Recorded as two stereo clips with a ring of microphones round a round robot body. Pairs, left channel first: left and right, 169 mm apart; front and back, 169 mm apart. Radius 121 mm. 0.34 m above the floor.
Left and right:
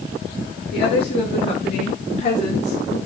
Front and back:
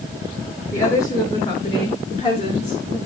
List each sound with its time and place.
0.7 s a woman speaking: 70° left, 5.5 m; by 3.0 s 50° left, 4.5 m